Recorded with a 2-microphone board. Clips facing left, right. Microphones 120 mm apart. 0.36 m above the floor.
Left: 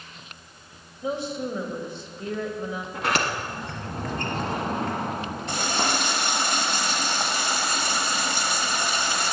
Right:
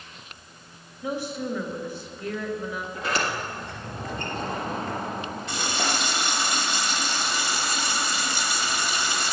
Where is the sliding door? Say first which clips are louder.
Left 2 dB; 80° left, 1.2 m.